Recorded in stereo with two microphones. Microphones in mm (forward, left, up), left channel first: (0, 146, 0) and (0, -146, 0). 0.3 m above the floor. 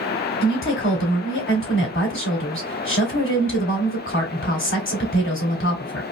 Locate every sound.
0.4 s a woman speaking: 40° left (ahead or behind), 1.9 m